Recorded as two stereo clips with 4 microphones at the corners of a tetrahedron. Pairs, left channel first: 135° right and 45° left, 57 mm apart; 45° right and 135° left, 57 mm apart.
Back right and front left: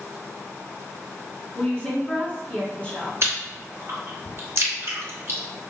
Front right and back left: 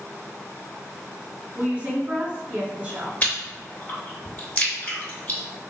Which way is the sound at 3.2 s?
10° left.